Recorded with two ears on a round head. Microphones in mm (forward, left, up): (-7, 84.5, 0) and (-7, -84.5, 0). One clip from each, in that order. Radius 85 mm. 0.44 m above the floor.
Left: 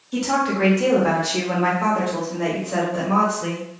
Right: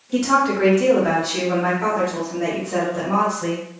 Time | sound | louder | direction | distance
0.1 | a woman speaking | right 3 dB | centre (ahead or behind) | 1.0 m